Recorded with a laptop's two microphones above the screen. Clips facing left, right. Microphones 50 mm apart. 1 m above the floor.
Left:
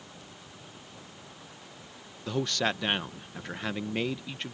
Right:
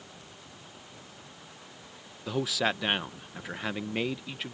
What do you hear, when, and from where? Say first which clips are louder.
2.3 s a man speaking: even; 5° right (ahead or behind)